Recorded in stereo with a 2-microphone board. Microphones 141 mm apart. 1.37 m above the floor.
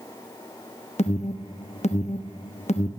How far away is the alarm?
About 0.9 m.